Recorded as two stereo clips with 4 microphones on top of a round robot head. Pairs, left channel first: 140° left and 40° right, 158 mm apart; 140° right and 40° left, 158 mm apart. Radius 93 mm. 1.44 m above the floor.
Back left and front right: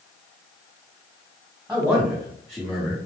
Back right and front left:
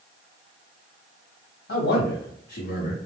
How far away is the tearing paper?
I don't hear tearing paper.